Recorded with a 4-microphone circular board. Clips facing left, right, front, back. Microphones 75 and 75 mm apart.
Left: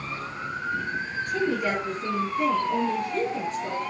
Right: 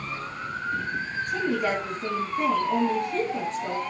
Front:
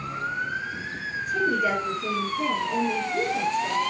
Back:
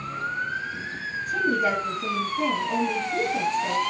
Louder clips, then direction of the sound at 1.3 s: Even, even; 140° right.